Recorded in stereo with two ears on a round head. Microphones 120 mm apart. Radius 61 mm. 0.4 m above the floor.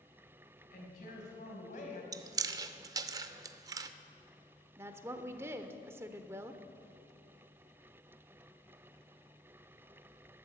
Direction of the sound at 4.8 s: 20° right (ahead or behind).